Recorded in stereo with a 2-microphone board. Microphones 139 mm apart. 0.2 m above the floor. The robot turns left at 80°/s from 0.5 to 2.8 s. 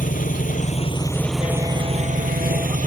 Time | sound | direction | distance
0.0 | an engine running | 70° left | ?